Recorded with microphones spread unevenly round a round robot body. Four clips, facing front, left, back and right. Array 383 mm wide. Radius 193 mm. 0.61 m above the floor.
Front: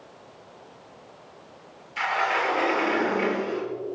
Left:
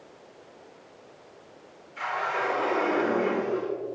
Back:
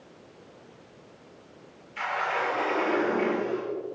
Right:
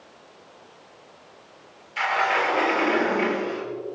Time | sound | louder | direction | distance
2.0 | a sliding door | right 6 dB, front 4 dB | 65° right | 6 m